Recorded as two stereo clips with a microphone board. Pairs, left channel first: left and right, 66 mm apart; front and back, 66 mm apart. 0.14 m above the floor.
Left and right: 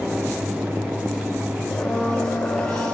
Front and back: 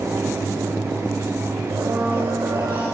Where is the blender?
160° left, 6 m.